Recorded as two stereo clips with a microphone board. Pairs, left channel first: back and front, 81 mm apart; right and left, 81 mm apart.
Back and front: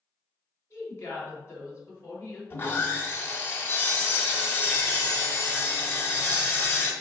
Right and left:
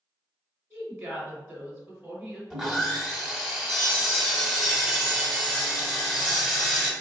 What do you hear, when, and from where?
0.7 s a woman speaking: 135° left, 1.6 m
2.5 s sawing: 165° left, 1.0 m